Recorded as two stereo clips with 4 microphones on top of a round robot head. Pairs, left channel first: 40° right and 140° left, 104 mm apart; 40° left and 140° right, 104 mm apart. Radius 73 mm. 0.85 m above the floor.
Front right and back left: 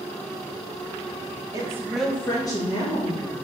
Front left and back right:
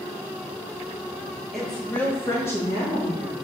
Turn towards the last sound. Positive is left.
turn(degrees=-25)